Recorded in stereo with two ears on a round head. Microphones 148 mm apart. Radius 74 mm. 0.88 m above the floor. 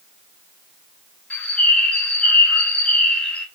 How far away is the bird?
About 0.5 m.